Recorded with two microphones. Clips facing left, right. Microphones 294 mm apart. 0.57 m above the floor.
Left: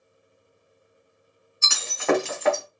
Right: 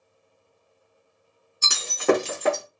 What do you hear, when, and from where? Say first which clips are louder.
1.6 s breaking glass: right 4 dB; 40° right (ahead or behind), 0.9 m